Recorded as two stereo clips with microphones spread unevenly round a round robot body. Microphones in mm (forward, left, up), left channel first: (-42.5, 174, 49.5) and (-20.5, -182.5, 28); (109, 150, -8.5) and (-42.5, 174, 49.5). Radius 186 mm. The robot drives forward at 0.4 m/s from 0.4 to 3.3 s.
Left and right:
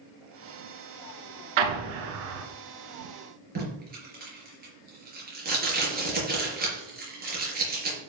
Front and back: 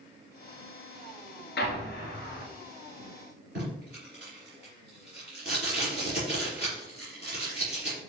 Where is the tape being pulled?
155° right, 4 m.